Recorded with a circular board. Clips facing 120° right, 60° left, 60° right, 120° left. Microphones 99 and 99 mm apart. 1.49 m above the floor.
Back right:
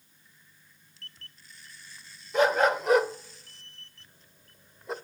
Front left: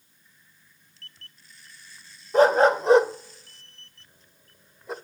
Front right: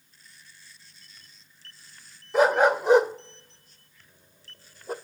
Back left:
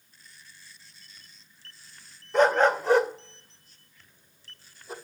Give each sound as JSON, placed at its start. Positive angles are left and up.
{"t": 2.3, "sound": "a dog barking", "azimuth_deg": 20, "distance_m": 1.6}